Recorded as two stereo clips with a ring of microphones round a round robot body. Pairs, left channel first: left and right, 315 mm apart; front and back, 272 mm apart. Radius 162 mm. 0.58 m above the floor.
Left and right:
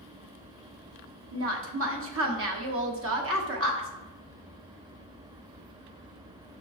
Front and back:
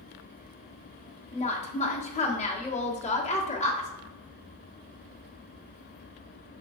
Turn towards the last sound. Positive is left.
turn(degrees=-60)